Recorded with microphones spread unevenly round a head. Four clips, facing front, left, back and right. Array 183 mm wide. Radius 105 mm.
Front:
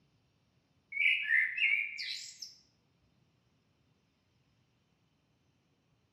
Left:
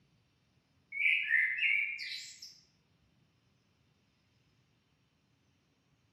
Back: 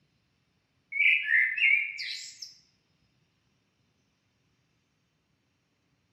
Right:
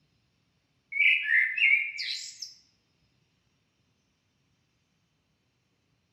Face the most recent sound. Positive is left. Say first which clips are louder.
# right 6 dB, back 5 dB
turn(degrees=-90)